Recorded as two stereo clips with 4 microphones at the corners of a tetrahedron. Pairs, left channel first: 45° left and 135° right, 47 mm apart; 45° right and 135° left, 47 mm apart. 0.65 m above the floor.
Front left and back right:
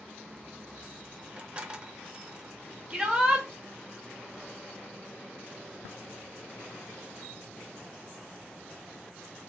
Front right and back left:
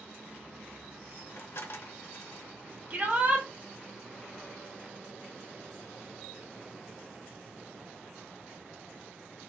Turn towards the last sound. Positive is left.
turn(degrees=160)